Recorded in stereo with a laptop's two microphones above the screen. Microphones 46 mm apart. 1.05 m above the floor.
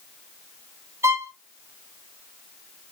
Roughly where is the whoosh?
No whoosh in this recording.